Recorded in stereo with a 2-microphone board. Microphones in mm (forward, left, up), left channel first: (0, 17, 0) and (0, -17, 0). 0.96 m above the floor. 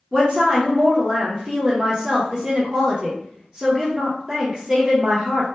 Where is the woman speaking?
25° right (ahead or behind), 0.5 m.